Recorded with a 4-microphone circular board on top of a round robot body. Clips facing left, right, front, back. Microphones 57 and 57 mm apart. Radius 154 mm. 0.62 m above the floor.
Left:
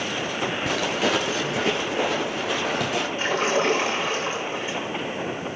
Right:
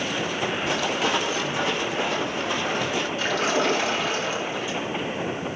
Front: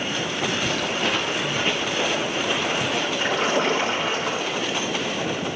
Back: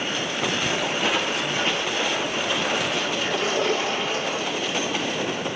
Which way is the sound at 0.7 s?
115° left.